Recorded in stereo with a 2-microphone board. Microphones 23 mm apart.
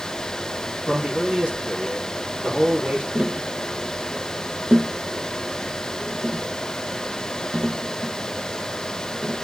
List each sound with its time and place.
0.9 s a man speaking: 75° right (ahead or behind), 6 m
3.1 s tapping: 40° right (ahead or behind), 0.5 m